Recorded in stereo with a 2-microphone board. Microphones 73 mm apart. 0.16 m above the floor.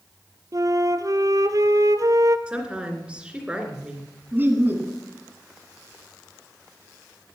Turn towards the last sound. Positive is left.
turn(degrees=-25)  # may be behind; listen again after turning